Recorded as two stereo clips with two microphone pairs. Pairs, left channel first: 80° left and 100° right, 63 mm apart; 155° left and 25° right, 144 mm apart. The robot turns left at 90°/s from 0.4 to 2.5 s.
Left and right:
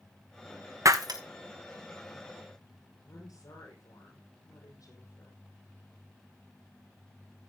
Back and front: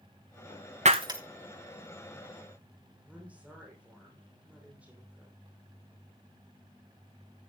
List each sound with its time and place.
0.8 s breaking glass: 65° right, 1.2 m; by 1.2 s 95° right, 1.2 m
3.0 s a woman speaking: 55° left, 5.5 m